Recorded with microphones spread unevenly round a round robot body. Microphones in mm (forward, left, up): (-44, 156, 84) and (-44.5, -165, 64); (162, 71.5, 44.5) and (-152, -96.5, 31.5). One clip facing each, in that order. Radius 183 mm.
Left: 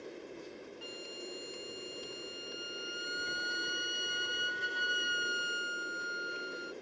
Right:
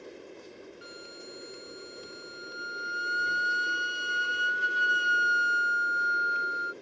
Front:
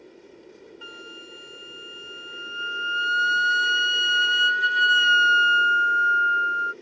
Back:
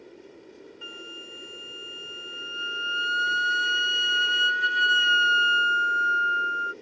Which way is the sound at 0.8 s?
10° right.